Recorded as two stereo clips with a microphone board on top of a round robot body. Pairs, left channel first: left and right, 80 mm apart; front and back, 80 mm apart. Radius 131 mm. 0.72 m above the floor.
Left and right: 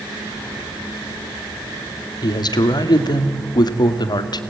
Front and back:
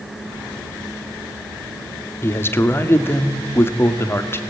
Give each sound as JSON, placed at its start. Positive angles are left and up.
{"t": 2.2, "sound": "a man speaking", "azimuth_deg": 60, "distance_m": 2.0}